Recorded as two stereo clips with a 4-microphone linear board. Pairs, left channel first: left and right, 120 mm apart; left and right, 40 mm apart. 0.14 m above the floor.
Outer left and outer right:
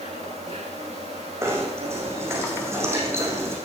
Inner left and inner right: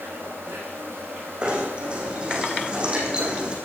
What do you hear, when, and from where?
0.0 s an insect: 75° right (ahead or behind), 9 m
1.4 s knocking: 25° right (ahead or behind), 6 m